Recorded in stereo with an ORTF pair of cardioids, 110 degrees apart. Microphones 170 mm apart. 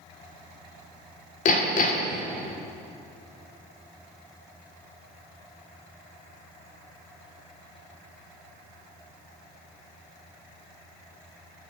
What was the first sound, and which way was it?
Hammering, 50° left.